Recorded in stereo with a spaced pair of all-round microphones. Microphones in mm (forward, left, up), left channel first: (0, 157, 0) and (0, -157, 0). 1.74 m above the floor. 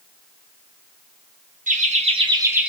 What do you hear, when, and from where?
1.7 s laughter: 25° right (ahead or behind), 0.9 m; by 2.7 s centre (ahead or behind), 0.6 m